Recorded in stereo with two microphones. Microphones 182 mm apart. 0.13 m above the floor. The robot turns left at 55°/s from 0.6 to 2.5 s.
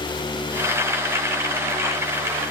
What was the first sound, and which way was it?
Only background noise.